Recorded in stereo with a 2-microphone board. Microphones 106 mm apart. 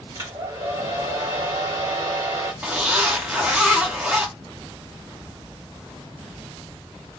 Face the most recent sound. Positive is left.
turn(degrees=-15)  # may be behind; listen again after turning